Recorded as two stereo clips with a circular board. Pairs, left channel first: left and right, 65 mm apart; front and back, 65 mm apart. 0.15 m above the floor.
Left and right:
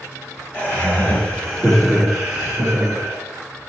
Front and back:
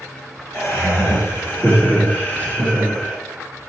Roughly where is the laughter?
Ahead left.